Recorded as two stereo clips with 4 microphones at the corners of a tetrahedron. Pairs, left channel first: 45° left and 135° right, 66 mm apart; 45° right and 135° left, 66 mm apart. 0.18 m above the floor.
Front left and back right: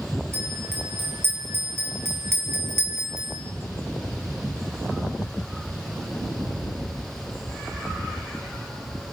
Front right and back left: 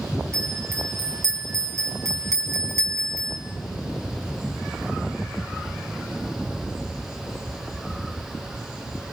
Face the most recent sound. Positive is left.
turn(degrees=175)